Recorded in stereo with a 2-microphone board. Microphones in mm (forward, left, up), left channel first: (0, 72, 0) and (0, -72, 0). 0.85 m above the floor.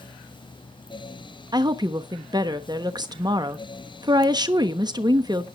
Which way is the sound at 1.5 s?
30° right (ahead or behind).